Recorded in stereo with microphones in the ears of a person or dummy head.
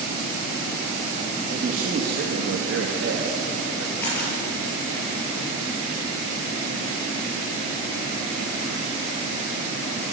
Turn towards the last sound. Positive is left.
turn(degrees=10)  # may be behind; listen again after turning